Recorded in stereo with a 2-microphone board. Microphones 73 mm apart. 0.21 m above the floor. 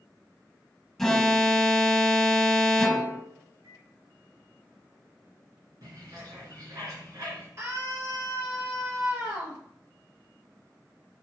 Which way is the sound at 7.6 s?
35° right (ahead or behind).